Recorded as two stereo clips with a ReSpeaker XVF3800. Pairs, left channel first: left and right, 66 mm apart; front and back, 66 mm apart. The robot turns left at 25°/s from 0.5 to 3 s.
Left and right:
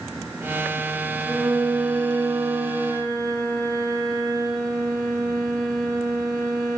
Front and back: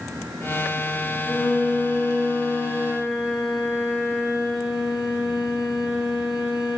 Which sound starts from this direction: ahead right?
A violin, at 1.2 s.